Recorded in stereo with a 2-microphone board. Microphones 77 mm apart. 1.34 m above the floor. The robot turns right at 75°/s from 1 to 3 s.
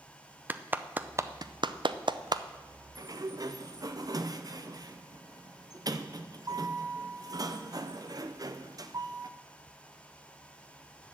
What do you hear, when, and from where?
0.5 s a clap: 20° right (ahead or behind), 0.5 m; by 2.4 s 50° right (ahead or behind), 0.5 m
3.0 s a sliding door: 50° right (ahead or behind), 0.6 m